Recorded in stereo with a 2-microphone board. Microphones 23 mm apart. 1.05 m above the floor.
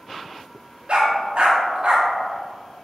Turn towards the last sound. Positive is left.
turn(degrees=-45)  # may be behind; listen again after turning